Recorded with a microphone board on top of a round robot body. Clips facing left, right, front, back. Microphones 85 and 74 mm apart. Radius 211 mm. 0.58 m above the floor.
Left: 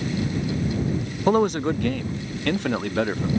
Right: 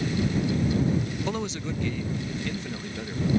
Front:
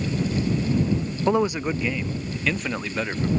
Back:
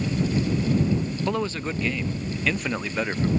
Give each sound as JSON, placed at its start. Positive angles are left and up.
{"t": 1.3, "sound": "a man speaking", "azimuth_deg": 60}